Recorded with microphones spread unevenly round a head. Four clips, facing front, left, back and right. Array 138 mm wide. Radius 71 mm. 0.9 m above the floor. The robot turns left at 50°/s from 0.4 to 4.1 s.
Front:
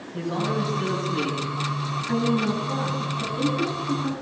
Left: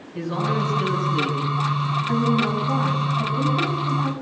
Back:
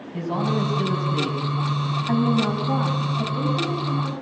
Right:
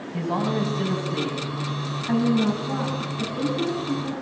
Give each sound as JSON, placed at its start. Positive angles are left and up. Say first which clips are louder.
{"t": 0.1, "sound": "a man speaking", "louder": "even, back 2 dB", "azimuth_deg": -115, "distance_m": 8.5}
{"t": 2.1, "sound": "a woman speaking", "louder": "right 1 dB, back 2 dB", "azimuth_deg": -155, "distance_m": 7.5}